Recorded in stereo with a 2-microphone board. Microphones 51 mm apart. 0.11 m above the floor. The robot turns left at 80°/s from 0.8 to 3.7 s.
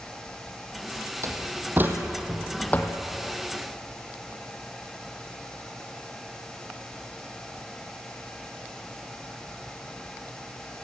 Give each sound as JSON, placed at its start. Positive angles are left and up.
{"t": 1.2, "sound": "a door slam", "side_deg": -70, "distance_m": 3.0}